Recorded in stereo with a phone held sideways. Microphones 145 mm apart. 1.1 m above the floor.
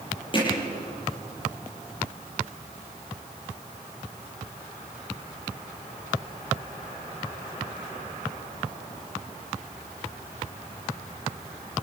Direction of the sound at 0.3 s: 35° left (ahead or behind).